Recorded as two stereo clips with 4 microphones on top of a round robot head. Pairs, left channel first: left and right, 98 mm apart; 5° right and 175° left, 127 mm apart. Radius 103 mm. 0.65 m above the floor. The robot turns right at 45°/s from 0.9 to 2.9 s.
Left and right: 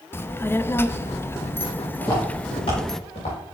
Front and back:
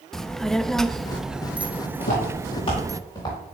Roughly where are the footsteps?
Ahead.